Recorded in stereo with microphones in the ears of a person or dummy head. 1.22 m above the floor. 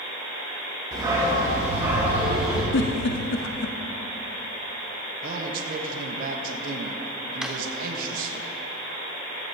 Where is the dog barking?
20° right (ahead or behind), 3 m; by 2.6 s 5° right (ahead or behind), 3 m.